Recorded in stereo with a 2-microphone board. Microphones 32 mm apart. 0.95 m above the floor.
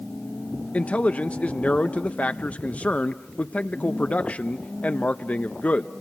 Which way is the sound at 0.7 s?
40° left (ahead or behind).